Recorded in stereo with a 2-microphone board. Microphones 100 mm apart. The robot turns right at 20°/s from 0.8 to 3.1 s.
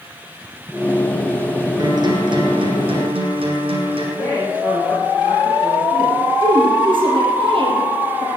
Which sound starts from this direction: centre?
A man speaking, at 4.2 s.